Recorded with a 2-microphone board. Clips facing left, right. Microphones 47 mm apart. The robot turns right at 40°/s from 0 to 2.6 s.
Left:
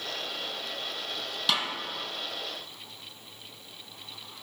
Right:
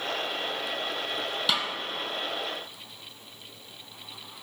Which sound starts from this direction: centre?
A snare drum, at 1.5 s.